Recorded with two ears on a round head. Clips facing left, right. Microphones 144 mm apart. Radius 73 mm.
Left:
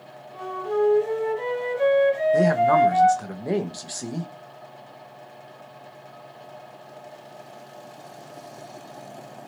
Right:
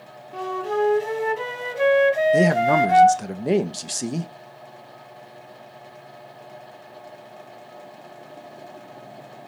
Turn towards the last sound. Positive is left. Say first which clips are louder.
# even
turn(degrees=-25)  # may be behind; listen again after turning